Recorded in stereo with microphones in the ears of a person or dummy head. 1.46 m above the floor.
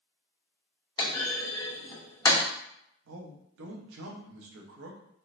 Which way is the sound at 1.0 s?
20° left (ahead or behind).